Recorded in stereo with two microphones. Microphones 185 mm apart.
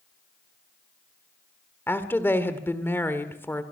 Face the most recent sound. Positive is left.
turn(degrees=10)  # may be behind; listen again after turning